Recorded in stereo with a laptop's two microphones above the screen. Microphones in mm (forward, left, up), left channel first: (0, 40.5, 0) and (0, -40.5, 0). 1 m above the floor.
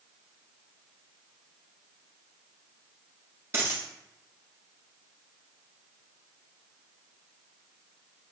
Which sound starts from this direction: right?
A dropped coin, at 3.5 s.